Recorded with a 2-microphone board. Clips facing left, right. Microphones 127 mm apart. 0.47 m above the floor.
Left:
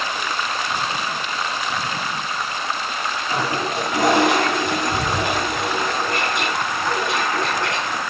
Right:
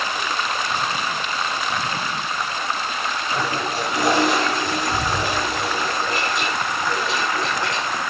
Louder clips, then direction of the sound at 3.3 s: Left 2 dB; 70° left (ahead or behind).